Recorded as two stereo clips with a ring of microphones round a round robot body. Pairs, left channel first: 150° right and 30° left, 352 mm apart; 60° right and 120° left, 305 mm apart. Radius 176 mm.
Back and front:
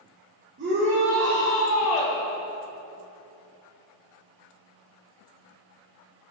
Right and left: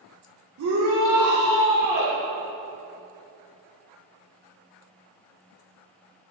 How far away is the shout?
About 1.3 m.